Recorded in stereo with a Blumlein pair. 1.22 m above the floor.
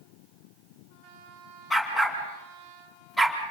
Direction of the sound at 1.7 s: 10° left.